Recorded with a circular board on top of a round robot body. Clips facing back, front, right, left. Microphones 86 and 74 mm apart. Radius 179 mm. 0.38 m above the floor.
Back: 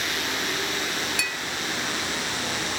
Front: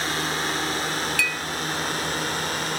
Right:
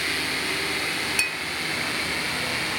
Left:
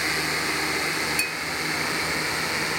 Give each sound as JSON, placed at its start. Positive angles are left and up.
{"t": 0.0, "sound": "a drone", "azimuth_deg": 30}
{"t": 1.2, "sound": "a clink", "azimuth_deg": -110}